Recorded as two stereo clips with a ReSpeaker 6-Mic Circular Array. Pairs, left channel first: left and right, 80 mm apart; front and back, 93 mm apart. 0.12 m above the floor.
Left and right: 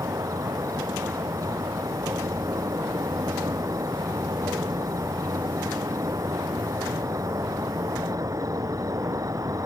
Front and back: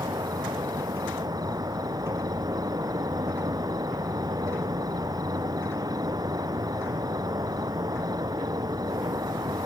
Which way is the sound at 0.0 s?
135° right.